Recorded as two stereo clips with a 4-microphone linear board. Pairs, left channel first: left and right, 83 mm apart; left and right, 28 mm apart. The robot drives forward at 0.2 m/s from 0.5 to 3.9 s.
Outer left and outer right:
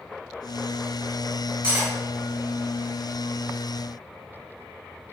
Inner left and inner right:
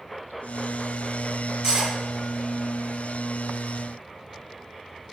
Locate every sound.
1.6 s cutlery clinking: 20° right (ahead or behind), 1.4 m